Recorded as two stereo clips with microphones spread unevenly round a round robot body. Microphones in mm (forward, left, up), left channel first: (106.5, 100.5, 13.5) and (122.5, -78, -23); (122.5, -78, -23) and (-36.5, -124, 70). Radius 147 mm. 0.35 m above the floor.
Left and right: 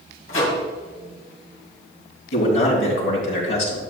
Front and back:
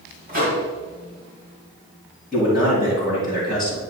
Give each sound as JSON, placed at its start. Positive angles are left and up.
{"t": 0.3, "sound": "a microwave", "azimuth_deg": 125, "distance_m": 2.5}
{"t": 2.3, "sound": "a man speaking", "azimuth_deg": 95, "distance_m": 3.5}